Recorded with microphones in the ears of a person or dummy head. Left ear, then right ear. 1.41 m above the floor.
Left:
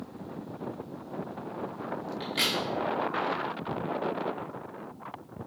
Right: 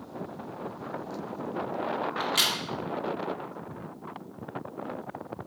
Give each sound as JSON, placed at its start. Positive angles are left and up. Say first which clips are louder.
{"t": 2.2, "sound": "a crack", "louder": "right 2 dB", "side_deg": -35, "distance_m": 1.8}